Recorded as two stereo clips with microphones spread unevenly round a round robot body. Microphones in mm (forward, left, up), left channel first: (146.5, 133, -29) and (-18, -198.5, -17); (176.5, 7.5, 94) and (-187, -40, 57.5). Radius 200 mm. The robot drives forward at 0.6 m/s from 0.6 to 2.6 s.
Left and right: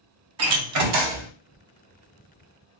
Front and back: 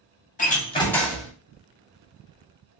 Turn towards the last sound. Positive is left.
turn(degrees=-140)